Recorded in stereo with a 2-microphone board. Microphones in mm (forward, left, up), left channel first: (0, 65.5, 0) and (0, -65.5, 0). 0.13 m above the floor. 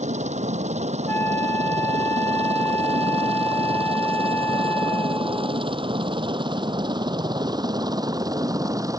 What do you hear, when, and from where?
0.0 s a helicopter: 65° right (ahead or behind); by 9.0 s 25° right (ahead or behind)
1.1 s a flute: 20° left (ahead or behind)